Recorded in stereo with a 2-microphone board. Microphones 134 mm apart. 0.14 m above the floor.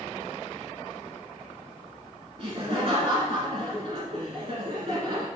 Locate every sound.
2.4 s laughter: 45° right (ahead or behind), 1.5 m